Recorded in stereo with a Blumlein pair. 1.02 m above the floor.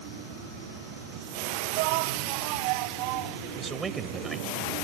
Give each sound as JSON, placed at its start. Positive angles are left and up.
{"t": 1.7, "sound": "a shout", "azimuth_deg": -45}
{"t": 3.6, "sound": "a man speaking", "azimuth_deg": -15}